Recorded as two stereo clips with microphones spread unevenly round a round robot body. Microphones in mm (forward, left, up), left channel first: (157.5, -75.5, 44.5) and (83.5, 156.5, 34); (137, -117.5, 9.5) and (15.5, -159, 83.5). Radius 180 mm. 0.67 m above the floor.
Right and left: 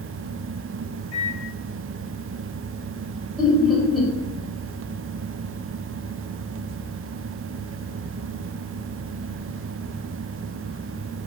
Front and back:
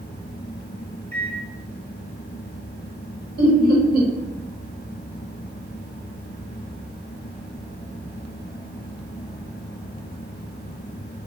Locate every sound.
1.1 s a microwave: 115° right, 2.0 m
3.4 s laughter: 165° right, 1.6 m